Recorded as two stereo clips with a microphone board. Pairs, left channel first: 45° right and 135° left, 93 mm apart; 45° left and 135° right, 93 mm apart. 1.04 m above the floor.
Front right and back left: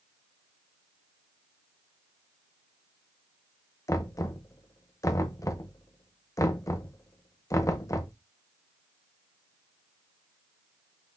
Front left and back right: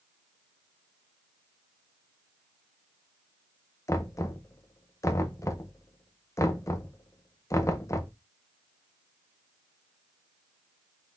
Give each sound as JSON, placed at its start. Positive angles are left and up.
{"t": 3.9, "sound": "knocking", "azimuth_deg": 0, "distance_m": 0.6}